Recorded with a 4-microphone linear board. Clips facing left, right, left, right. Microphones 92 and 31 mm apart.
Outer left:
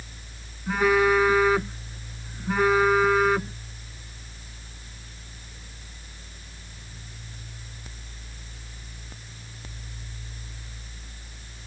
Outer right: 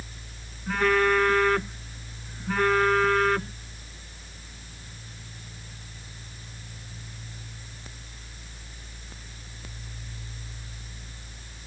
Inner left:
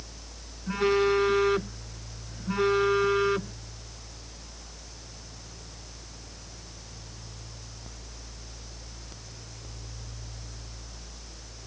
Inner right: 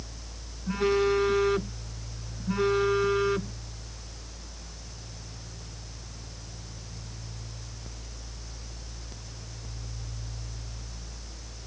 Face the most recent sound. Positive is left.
turn(degrees=10)  # may be behind; listen again after turning